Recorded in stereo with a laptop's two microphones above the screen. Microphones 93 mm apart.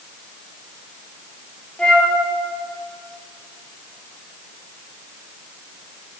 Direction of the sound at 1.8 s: 10° left (ahead or behind).